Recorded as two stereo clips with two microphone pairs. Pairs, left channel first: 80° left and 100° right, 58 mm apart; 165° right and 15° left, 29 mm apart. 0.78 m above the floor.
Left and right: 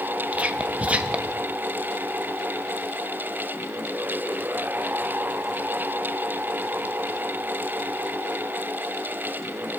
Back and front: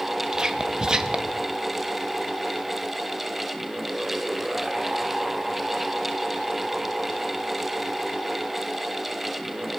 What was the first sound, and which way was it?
Whispering, 40° right.